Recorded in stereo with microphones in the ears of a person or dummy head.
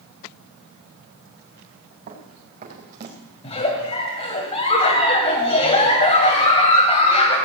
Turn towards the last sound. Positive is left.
turn(degrees=25)  # may be behind; listen again after turning